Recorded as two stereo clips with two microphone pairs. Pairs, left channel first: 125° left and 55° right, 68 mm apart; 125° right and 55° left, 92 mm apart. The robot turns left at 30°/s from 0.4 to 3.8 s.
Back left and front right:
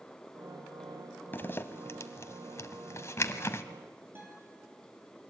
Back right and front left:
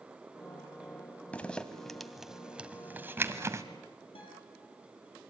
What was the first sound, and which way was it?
A zipper, 165° left.